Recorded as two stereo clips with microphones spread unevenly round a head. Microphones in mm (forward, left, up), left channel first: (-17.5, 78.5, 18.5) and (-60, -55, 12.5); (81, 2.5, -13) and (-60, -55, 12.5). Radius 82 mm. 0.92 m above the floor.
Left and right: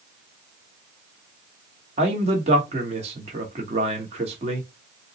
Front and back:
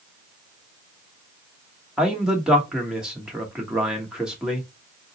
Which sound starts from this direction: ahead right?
A man speaking, at 2.0 s.